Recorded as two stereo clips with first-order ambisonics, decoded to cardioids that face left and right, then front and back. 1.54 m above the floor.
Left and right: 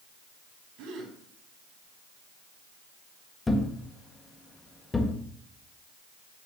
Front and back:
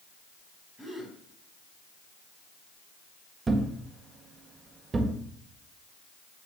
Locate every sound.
0.8 s a gasp: 85° right, 3.5 m
3.5 s a thud: 145° left, 0.9 m